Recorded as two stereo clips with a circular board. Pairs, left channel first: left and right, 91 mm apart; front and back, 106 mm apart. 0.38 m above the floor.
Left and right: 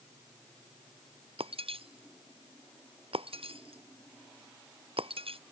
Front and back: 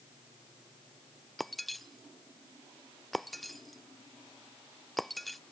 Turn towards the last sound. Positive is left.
turn(degrees=-90)